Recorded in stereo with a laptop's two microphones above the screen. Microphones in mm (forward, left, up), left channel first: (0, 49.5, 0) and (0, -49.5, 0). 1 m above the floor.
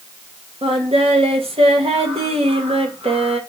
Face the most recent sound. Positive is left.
turn(degrees=-75)  # may be behind; listen again after turning